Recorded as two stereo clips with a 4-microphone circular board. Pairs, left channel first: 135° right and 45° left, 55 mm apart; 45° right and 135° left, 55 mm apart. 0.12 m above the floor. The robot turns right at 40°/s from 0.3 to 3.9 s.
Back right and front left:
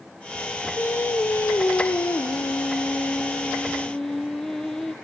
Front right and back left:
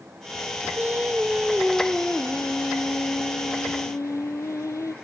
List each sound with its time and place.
0.8 s singing: straight behind, 0.5 m; by 5.0 s 50° right, 0.5 m